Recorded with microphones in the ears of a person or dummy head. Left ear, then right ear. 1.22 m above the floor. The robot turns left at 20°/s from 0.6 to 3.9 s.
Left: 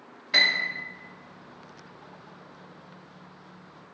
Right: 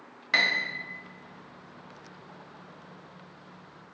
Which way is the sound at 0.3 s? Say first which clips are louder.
Left 3 dB; 25° right (ahead or behind).